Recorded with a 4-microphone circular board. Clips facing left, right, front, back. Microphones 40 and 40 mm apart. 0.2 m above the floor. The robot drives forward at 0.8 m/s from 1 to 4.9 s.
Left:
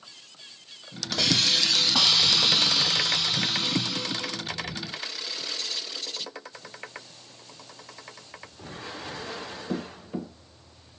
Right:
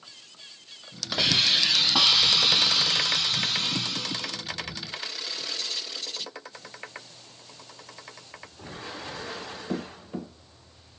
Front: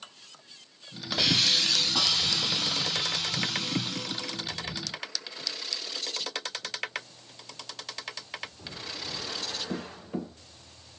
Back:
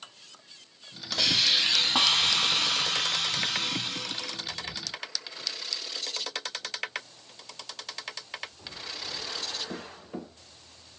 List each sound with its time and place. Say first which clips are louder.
1.1 s a hiss: right 1 dB, even; 50° right, 0.7 m; by 4.4 s 175° right, 2.5 m